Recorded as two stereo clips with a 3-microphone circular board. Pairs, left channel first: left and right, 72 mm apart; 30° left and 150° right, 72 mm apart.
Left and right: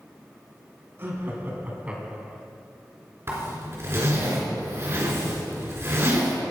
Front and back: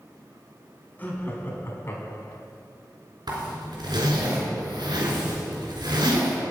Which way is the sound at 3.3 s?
140° right.